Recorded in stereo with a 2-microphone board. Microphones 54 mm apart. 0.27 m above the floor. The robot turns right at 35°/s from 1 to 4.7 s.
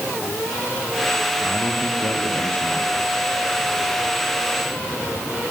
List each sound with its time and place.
1.4 s a man speaking: 105° left, 7 m; by 3.1 s 165° left, 7 m